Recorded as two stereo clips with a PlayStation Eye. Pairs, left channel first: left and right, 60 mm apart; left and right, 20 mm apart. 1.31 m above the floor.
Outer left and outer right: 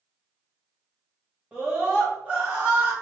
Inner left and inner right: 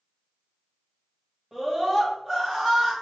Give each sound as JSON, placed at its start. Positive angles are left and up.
{"t": 1.5, "sound": "a scream", "side_deg": -20, "distance_m": 2.0}